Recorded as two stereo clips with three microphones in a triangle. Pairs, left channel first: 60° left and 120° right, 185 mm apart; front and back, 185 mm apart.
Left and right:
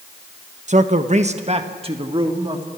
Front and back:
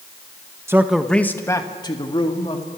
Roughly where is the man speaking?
Behind right.